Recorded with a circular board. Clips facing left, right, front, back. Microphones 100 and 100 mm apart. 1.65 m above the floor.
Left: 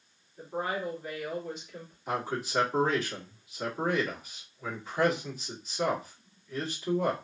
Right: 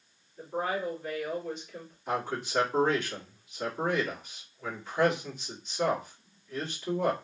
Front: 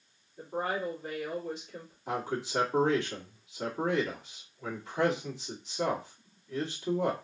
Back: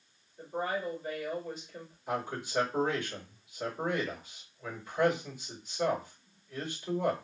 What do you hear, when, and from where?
0.4 s a woman speaking: 5° left, 2 m
2.1 s a man speaking: 5° left, 2 m